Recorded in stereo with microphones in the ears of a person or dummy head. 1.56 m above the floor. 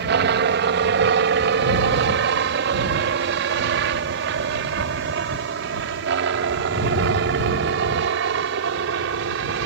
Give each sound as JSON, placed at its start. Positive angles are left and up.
{"t": 0.0, "sound": "a helicopter", "side_deg": -60}